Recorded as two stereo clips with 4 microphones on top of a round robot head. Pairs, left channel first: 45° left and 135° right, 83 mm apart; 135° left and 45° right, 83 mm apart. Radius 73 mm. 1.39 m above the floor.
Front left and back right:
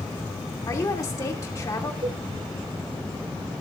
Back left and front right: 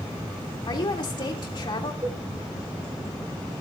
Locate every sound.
0.7 s a woman speaking: 100° left, 2.5 m
2.0 s a cowbell: 105° right, 4 m